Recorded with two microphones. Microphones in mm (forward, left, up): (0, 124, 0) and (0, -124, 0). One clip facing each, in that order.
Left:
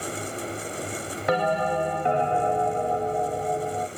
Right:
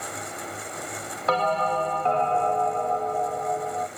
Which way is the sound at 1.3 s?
15° left (ahead or behind).